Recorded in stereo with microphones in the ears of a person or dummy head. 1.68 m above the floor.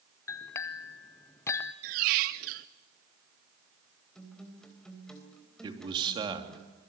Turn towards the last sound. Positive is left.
turn(degrees=-25)  # may be behind; listen again after turning